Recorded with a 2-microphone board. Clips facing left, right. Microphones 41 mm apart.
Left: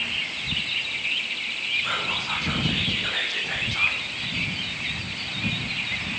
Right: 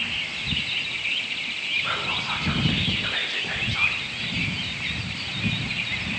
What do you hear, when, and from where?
1.8 s whispering: 5° right (ahead or behind), 6.5 m